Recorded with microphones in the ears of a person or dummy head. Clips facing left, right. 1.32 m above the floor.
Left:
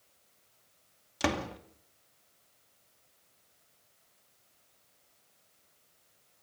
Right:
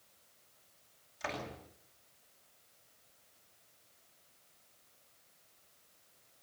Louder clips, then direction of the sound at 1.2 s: Left 10 dB; 75° left (ahead or behind).